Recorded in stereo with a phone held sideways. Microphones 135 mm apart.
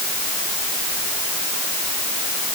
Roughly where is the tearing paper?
No tearing paper in this recording.